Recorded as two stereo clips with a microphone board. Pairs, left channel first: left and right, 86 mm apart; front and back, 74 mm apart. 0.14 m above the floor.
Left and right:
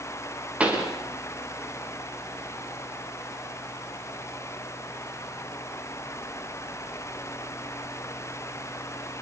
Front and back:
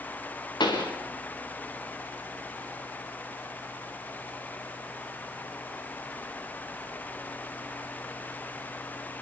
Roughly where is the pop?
Ahead.